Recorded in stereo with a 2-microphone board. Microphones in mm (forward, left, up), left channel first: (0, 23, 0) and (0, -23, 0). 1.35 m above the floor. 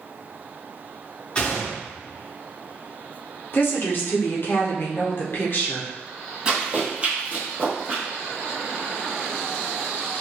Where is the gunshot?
20° left (ahead or behind), 0.9 m.